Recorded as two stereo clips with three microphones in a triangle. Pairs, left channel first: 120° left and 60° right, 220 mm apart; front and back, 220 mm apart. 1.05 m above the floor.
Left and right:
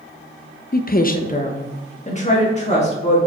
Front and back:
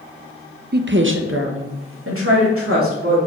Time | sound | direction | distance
0.7 | a woman speaking | 155° left | 0.6 m